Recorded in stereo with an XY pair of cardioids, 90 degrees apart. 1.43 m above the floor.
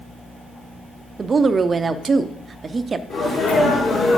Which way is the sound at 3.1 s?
45° left.